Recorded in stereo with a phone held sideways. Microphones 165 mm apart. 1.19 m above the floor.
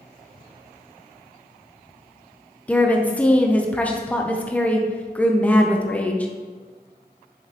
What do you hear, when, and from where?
2.7 s a woman speaking: 10° left (ahead or behind), 0.7 m